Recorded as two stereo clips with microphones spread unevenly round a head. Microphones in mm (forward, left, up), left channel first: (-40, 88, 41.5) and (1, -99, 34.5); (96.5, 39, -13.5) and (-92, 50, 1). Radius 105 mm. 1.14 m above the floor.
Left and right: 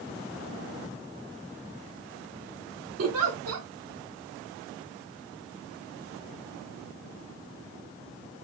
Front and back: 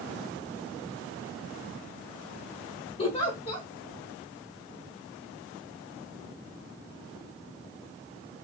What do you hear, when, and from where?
3.0 s a giggle: 70° right, 0.7 m